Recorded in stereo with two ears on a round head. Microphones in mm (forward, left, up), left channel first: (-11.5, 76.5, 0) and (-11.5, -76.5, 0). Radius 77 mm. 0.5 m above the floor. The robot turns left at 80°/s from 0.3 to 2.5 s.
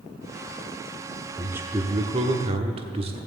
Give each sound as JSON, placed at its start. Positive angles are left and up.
{"t": 1.4, "sound": "a man speaking", "azimuth_deg": -10, "distance_m": 1.0}